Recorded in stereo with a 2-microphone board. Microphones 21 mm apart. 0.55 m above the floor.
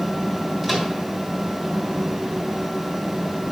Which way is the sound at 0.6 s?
15° right (ahead or behind).